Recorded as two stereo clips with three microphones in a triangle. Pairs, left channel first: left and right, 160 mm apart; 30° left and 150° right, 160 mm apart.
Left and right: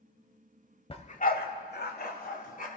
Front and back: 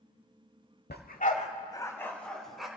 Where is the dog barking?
35° left, 1.1 m; by 2.7 s 120° left, 2 m.